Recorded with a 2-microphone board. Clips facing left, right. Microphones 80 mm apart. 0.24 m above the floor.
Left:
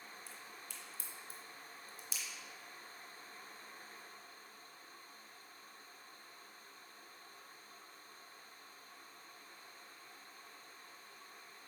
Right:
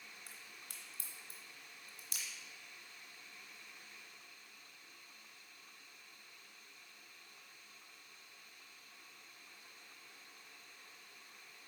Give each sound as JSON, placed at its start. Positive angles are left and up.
{"t": 0.3, "sound": "a crack", "side_deg": -55, "distance_m": 1.9}